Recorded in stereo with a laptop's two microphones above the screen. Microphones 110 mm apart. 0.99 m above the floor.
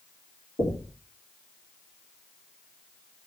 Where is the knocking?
65° left (ahead or behind), 2 m.